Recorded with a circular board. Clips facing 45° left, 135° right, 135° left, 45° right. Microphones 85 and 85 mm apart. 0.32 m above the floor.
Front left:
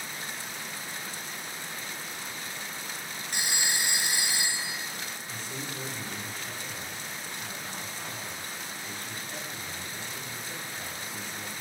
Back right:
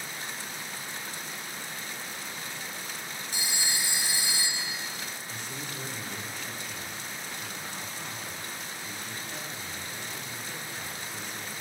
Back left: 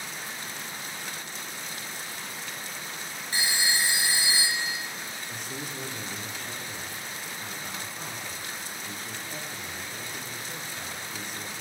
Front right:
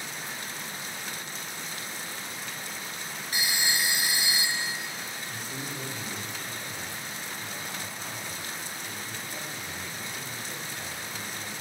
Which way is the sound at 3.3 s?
75° left.